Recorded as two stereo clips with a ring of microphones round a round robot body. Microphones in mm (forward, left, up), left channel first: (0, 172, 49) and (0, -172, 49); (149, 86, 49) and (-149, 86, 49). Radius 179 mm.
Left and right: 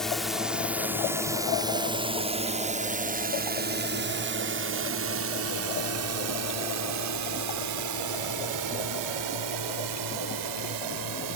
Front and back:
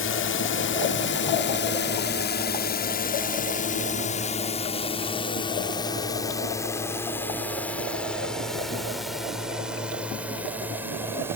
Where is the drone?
Straight ahead; by 11.4 s 100° right.